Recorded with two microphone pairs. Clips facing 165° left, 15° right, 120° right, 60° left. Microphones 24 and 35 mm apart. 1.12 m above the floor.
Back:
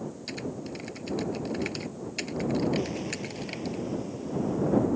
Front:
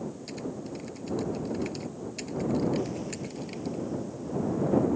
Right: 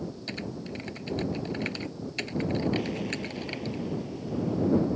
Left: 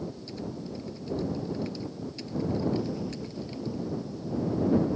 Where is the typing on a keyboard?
140° right.